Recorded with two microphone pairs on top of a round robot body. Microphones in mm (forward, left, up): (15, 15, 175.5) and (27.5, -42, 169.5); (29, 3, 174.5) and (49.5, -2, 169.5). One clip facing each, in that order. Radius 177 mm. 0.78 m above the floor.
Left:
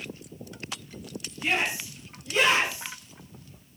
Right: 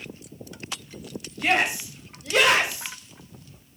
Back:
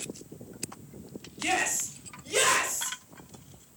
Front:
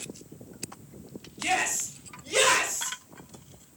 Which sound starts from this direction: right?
A shout, at 1.4 s.